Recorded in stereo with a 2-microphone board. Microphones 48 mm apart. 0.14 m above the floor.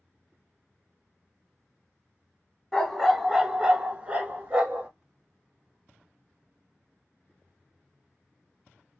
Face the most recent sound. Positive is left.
turn(degrees=-30)  # may be behind; listen again after turning